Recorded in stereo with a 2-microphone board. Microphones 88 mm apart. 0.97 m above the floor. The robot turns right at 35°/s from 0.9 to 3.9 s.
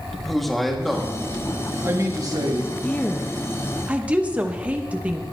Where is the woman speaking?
15° left (ahead or behind), 1.0 m; by 5.2 s 15° right (ahead or behind), 1.0 m.